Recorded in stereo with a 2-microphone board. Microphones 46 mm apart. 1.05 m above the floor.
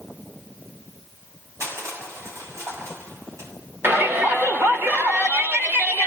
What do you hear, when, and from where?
1.6 s crushing: 85° right, 7 m
3.8 s a shout: 55° right (ahead or behind), 4 m